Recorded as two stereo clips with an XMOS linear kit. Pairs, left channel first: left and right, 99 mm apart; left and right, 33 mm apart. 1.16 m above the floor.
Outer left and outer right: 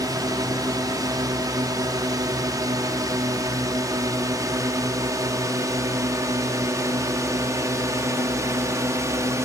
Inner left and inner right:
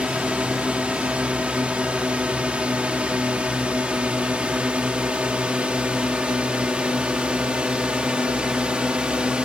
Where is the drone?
40° right (ahead or behind); by 9.5 s 30° right (ahead or behind).